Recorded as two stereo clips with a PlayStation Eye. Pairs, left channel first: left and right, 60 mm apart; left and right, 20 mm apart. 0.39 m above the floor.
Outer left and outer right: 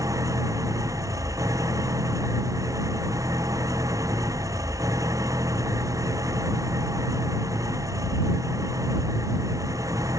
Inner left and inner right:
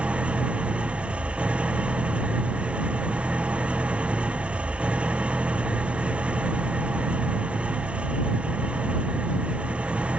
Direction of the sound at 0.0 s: 70° right (ahead or behind).